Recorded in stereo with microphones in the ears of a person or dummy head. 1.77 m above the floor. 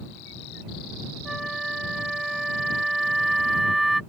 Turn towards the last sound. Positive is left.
turn(degrees=0)  # may be behind; listen again after turning